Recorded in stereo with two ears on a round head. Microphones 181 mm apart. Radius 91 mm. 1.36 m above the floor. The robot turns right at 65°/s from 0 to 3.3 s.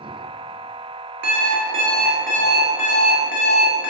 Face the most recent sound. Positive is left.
turn(degrees=70)